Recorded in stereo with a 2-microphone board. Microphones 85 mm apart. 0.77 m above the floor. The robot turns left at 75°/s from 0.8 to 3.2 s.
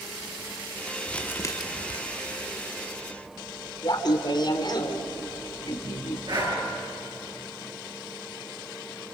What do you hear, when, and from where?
1.1 s crumpling: 170° left, 1.4 m; by 2.0 s 105° left, 1.4 m
3.8 s laughter: 50° left (ahead or behind), 3 m
6.3 s breathing: 55° right (ahead or behind), 6.5 m